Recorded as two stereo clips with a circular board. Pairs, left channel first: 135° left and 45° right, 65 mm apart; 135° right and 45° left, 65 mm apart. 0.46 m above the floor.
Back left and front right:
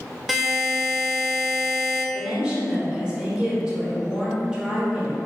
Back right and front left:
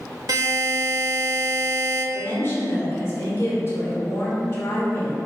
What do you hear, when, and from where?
0.3 s a buzzer: 40° left, 0.7 m
2.1 s a woman speaking: 115° right, 1.7 m